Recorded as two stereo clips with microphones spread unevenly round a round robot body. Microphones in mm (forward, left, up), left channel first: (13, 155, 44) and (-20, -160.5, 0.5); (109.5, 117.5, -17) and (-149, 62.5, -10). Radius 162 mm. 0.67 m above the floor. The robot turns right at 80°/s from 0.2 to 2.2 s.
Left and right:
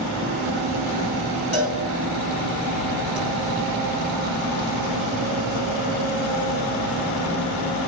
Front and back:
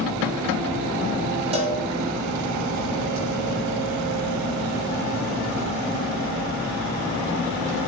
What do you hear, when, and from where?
1.5 s a cowbell: 125° left, 6 m; by 3.2 s straight behind, 6 m